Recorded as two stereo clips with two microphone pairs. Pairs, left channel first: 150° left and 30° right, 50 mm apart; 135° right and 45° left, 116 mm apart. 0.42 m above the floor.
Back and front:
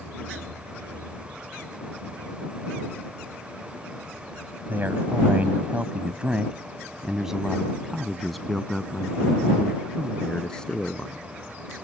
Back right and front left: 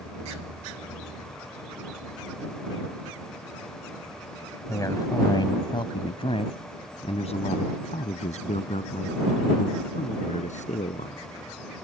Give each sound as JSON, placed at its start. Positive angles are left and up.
{"t": 4.7, "sound": "a man speaking", "azimuth_deg": -75}